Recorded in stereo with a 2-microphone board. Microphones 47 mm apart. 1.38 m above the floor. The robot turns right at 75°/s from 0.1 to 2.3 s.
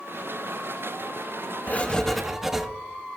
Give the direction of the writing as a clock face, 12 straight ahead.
7 o'clock.